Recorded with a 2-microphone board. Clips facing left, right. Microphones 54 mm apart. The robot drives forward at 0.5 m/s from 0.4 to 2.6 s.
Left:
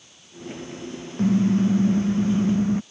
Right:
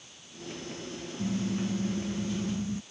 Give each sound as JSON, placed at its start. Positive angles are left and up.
{"t": 1.2, "sound": "a car horn", "side_deg": 45}